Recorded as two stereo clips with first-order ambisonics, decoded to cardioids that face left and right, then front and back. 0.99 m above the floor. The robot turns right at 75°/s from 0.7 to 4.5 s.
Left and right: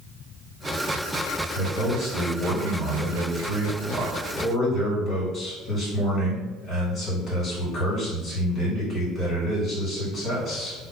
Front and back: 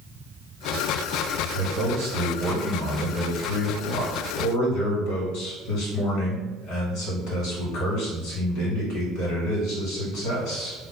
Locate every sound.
1.5 s a man speaking: 160° left, 1.7 m; by 10.8 s 20° left, 1.7 m